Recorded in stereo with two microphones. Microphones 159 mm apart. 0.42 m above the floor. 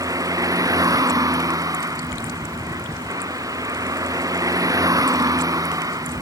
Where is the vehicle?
20° right (ahead or behind).